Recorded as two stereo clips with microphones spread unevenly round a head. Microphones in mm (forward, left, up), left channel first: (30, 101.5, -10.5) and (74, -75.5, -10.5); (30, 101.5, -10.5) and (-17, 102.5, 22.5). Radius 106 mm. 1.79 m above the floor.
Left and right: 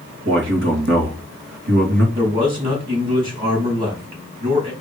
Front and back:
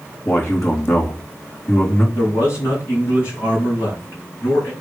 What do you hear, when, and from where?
0.2 s a man speaking: 70° right, 2.5 m
2.1 s a man speaking: 35° right, 4 m